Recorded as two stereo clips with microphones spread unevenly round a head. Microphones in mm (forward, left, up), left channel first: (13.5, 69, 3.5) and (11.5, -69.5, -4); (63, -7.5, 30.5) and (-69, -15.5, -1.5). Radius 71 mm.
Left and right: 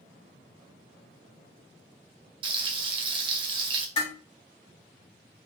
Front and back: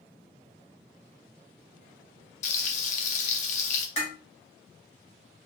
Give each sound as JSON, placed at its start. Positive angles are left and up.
{"t": 2.4, "sound": "frying", "azimuth_deg": -35, "distance_m": 0.7}
{"t": 4.0, "sound": "dishes clattering", "azimuth_deg": 45, "distance_m": 1.9}